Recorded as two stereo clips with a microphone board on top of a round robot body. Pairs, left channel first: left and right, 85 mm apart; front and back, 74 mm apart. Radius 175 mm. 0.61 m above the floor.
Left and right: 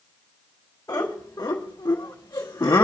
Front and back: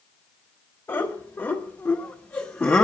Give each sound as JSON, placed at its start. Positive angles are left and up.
{"t": 0.9, "sound": "laughter", "azimuth_deg": 40, "distance_m": 2.0}